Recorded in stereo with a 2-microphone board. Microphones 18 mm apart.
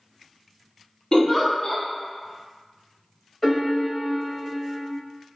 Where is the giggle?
35° left (ahead or behind), 0.6 m.